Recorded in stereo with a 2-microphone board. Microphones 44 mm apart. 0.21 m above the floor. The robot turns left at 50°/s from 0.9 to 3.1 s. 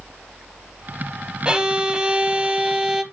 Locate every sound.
1.4 s a violin: 20° right (ahead or behind), 0.8 m; by 3.0 s 10° right (ahead or behind), 0.8 m